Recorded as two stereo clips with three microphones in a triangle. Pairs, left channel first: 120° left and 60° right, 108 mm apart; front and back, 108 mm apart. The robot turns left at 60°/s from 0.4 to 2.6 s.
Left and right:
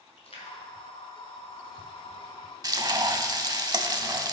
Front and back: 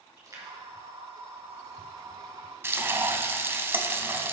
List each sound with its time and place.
0.2 s a splash: 125° left, 2.0 m; by 2.3 s 10° left, 2.0 m
2.6 s frying: 115° right, 0.5 m